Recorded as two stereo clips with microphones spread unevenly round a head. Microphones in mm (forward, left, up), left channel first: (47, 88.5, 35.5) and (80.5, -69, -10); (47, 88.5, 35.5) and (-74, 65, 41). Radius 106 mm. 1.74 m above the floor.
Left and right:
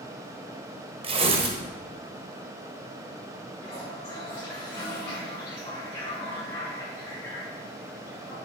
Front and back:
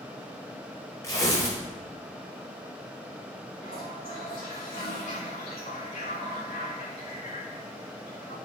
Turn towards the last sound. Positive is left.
turn(degrees=30)